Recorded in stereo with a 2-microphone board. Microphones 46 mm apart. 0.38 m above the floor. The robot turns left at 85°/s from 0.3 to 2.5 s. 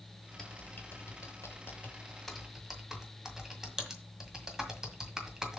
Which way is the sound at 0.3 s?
10° left (ahead or behind).